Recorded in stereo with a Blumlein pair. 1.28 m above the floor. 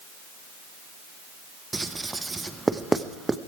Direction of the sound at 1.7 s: 10° right.